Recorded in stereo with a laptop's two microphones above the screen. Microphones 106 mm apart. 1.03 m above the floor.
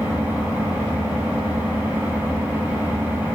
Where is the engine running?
15° right (ahead or behind), 2.5 m.